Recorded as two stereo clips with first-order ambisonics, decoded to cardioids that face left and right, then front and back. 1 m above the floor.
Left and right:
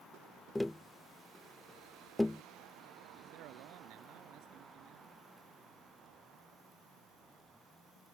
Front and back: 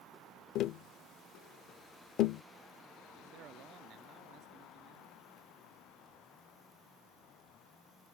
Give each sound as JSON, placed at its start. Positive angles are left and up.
{"t": 0.6, "sound": "tapping", "azimuth_deg": 10}
{"t": 3.2, "sound": "a man speaking", "azimuth_deg": -130}